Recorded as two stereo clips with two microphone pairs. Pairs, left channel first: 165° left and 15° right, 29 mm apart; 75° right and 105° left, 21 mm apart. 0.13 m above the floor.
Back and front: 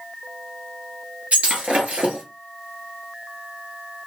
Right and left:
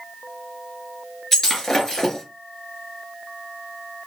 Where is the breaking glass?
5° right, 1.3 m.